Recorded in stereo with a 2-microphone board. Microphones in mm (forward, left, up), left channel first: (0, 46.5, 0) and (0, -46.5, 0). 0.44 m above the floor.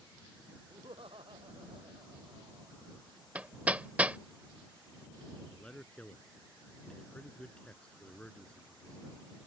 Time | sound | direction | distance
0.7 | laughter | 75° right (ahead or behind) | ?
3.4 | hammering | 15° right (ahead or behind) | ?
5.5 | a man speaking | 10° left (ahead or behind) | ?